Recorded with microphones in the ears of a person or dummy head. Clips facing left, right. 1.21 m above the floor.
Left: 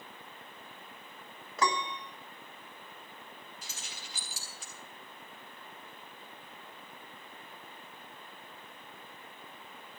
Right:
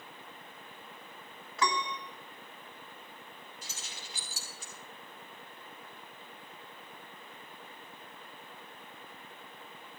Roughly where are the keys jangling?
Left.